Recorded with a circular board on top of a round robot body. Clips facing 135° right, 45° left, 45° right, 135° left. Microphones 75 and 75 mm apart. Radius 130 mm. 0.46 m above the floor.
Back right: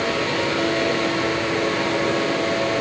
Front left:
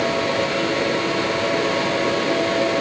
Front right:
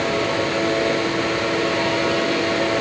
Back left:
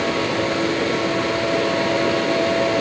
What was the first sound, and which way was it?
Only background noise.